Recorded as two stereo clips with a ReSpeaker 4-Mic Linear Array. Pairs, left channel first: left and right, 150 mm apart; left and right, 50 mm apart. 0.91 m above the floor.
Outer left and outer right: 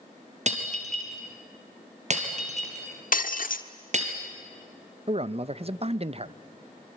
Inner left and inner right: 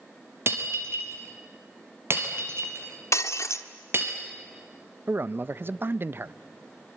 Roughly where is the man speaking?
Right.